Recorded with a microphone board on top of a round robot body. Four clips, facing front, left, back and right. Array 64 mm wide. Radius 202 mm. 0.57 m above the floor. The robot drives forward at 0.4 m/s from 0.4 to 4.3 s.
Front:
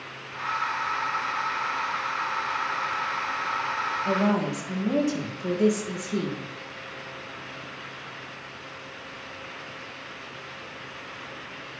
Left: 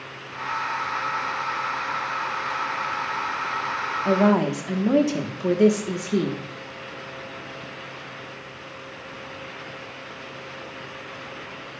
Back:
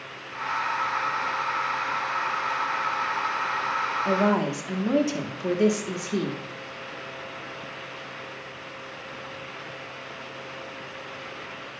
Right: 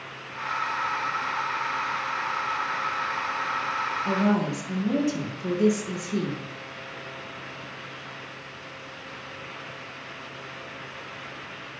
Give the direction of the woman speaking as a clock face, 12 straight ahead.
8 o'clock.